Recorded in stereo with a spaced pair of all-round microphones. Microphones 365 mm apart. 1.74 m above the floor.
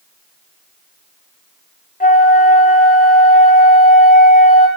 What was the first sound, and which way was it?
A flute, 25° left (ahead or behind).